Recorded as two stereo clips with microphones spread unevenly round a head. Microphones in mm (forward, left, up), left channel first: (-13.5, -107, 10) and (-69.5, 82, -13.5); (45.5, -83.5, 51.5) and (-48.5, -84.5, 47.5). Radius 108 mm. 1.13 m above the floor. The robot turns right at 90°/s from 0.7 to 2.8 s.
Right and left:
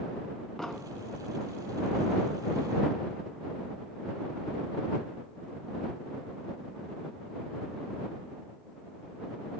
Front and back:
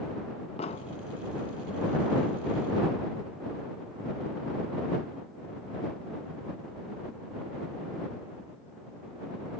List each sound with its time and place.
0.6 s an explosion: 10° left; by 1.0 s 35° left